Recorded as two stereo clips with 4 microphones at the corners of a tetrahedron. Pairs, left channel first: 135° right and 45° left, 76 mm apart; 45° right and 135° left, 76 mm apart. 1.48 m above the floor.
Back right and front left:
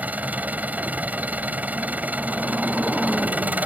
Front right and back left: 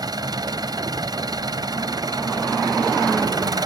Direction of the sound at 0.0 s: 115° left.